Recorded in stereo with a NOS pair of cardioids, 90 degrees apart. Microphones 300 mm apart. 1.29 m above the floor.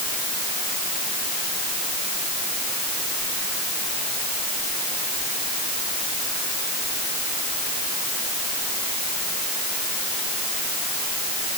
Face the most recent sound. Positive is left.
No sound to turn to.